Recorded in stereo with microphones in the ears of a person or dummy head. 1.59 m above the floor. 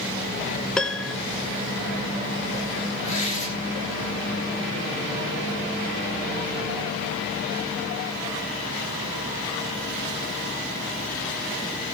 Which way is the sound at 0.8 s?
5° left (ahead or behind).